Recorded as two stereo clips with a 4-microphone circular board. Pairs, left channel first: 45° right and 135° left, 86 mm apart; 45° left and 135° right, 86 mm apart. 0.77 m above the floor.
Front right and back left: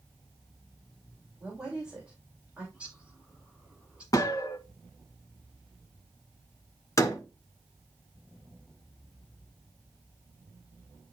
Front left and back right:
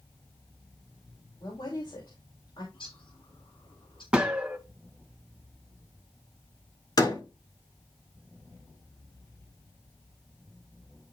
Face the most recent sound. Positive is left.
turn(degrees=5)